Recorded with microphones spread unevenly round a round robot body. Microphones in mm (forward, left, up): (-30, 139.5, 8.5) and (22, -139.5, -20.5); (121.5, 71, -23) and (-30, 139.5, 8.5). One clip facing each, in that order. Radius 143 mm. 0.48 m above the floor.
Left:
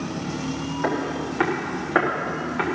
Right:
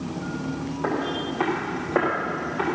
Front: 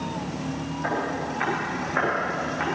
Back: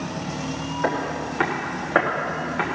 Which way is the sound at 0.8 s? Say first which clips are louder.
Left 1 dB, back 3 dB; 145° left.